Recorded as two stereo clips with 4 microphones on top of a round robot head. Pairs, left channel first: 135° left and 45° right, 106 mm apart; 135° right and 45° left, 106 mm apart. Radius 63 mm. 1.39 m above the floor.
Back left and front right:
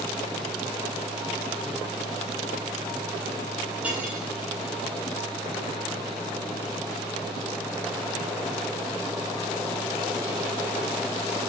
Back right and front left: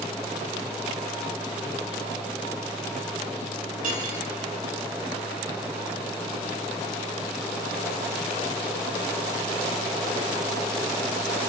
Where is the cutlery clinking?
30° left, 9 m.